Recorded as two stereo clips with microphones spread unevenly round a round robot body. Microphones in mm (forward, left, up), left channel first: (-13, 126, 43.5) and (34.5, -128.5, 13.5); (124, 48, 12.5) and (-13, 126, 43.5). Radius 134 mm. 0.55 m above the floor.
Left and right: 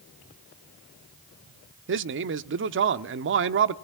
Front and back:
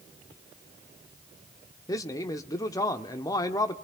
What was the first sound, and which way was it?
A man speaking, 85° right.